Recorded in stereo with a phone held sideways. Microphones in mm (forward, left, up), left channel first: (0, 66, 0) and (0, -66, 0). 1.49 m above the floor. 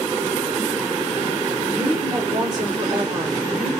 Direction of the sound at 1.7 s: 55° right (ahead or behind).